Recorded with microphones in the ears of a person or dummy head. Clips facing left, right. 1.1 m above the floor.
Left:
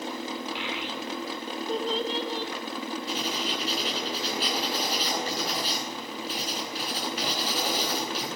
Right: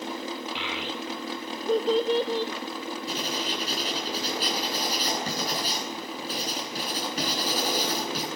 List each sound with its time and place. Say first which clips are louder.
0.6 s a child speaking: even; 70° right (ahead or behind), 2.5 m; by 2.5 s 80° right, 3 m
3.1 s writing: even; 35° right (ahead or behind), 9.5 m